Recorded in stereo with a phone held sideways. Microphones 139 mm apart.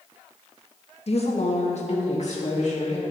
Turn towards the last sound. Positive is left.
turn(degrees=65)  # may be behind; listen again after turning